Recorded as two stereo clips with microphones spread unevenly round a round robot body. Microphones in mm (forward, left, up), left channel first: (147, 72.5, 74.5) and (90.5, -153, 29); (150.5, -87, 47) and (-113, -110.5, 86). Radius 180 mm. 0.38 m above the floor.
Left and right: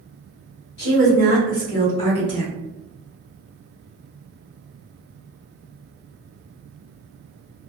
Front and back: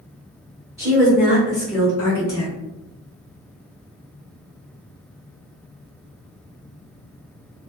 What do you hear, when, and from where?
0.8 s a woman speaking: 100° left, 1.5 m; by 2.5 s 5° right, 1.2 m